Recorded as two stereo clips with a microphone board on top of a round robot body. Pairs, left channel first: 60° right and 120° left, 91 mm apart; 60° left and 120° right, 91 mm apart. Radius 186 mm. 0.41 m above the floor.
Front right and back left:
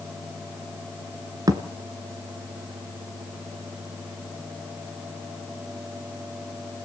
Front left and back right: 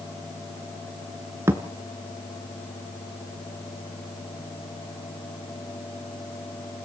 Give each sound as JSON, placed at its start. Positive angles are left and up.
{"t": 1.5, "sound": "a thud", "azimuth_deg": 175, "distance_m": 1.1}